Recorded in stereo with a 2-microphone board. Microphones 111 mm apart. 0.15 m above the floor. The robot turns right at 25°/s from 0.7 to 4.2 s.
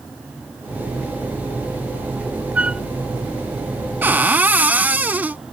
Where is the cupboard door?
15° right (ahead or behind).